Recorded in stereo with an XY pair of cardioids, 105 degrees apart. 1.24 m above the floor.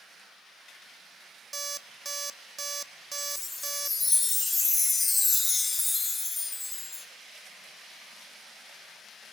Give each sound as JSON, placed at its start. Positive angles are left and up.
{"t": 1.5, "sound": "an alarm clock", "azimuth_deg": -25, "distance_m": 1.4}
{"t": 3.2, "sound": "a chime", "azimuth_deg": 20, "distance_m": 3.5}